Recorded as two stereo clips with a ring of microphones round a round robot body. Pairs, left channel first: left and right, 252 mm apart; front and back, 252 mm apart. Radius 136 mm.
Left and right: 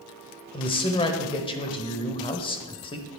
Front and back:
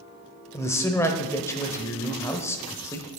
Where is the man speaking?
60° left, 0.9 m.